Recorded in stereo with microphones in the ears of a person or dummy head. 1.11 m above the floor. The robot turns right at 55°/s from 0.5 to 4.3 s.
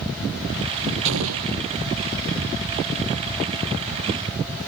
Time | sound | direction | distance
1.1 | an explosion | 60° right (ahead or behind) | ?